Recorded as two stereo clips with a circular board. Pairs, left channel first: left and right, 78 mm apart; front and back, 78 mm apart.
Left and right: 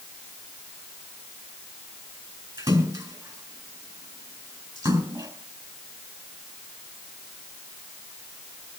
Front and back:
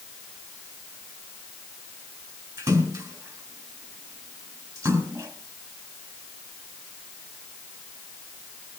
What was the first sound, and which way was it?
A splash, 125° right.